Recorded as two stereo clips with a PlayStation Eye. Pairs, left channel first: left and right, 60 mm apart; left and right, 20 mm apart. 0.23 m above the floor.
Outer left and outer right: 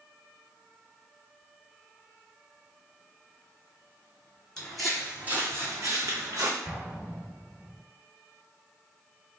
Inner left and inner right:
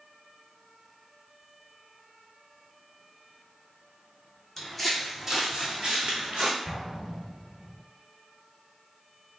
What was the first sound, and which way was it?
Footsteps, 15° left (ahead or behind).